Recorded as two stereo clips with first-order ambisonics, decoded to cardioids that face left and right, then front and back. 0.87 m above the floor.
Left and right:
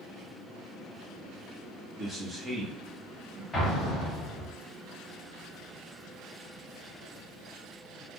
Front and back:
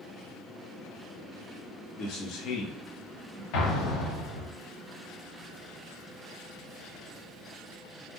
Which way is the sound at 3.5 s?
15° left.